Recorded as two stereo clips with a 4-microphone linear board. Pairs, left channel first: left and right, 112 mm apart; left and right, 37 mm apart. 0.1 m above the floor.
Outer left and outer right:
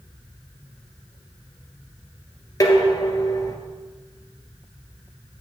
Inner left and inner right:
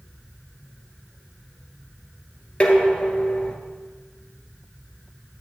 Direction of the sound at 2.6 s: 35° left (ahead or behind).